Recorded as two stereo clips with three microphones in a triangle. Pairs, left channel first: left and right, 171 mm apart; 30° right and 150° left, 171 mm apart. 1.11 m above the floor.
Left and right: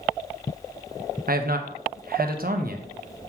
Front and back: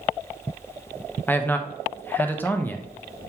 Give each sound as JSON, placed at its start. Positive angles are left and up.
{"t": 1.3, "sound": "a man speaking", "azimuth_deg": -110, "distance_m": 1.0}